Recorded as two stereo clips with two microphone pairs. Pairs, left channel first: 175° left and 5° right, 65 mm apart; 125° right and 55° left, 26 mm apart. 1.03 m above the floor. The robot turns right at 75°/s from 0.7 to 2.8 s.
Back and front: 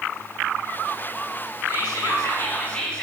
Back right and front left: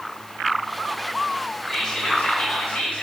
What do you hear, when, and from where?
1.7 s whispering: 160° left, 2.5 m; by 3.0 s 115° right, 2.5 m